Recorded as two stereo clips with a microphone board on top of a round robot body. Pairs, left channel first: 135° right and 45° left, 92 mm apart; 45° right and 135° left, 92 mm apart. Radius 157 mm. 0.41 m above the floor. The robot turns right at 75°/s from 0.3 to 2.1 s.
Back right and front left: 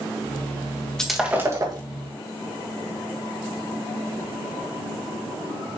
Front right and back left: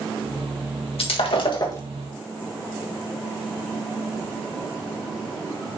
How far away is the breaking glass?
About 2 m.